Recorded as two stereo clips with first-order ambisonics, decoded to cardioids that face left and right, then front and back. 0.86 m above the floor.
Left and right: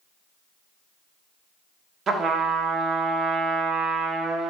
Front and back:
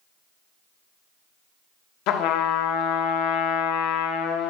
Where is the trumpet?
25° right, 0.8 m.